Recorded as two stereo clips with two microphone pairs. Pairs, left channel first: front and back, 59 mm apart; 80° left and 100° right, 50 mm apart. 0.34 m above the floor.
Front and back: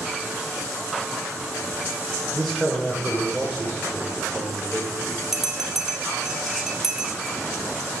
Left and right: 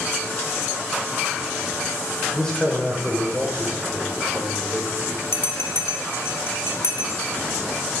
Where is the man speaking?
80° left, 0.9 m; by 5.2 s 90° right, 1.7 m.